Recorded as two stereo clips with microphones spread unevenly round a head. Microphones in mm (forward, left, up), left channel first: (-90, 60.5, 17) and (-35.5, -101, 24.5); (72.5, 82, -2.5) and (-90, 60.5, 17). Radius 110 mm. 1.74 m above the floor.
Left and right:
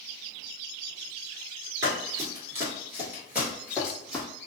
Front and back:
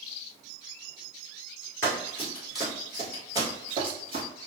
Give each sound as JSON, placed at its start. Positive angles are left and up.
{"t": 1.8, "sound": "running footsteps", "azimuth_deg": -65, "distance_m": 1.8}